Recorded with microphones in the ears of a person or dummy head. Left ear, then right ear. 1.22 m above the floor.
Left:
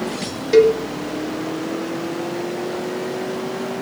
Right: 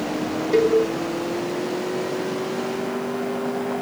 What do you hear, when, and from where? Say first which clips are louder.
0.5 s a cowbell: left 5 dB; 25° left (ahead or behind), 2.5 m